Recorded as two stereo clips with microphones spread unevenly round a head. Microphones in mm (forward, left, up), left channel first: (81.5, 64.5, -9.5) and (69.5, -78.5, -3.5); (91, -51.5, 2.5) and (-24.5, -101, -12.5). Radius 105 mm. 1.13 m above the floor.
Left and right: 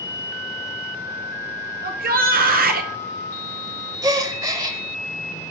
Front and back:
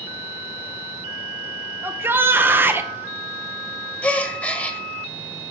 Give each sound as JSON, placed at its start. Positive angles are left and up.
{"t": 1.8, "sound": "a shout", "azimuth_deg": -85, "distance_m": 0.7}
{"t": 4.0, "sound": "a gasp", "azimuth_deg": -45, "distance_m": 1.1}